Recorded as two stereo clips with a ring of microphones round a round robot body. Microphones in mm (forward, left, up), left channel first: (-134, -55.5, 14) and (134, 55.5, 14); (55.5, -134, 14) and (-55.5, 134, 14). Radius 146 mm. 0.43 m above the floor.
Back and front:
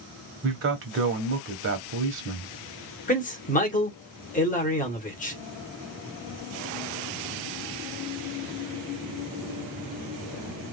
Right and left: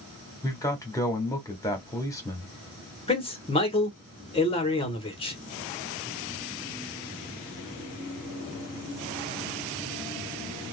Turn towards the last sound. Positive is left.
turn(degrees=-120)